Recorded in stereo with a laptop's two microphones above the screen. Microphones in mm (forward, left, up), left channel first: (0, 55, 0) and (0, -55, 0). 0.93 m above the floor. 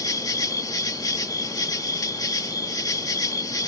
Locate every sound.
0.0 s an insect: 35° left (ahead or behind)